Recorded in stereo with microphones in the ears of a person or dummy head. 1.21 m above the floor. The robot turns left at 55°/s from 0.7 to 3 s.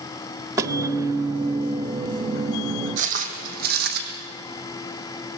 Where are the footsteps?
45° right (ahead or behind), 3 m; by 4.0 s 60° right (ahead or behind), 3.5 m.